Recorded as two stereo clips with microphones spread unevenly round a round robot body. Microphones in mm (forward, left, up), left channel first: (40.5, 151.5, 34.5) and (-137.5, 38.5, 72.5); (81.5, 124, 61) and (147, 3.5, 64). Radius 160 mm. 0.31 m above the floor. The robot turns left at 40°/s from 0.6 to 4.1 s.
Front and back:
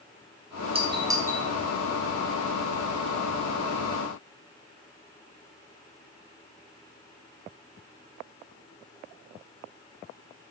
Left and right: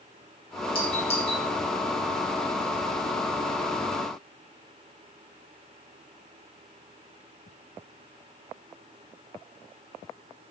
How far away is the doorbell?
About 2.5 m.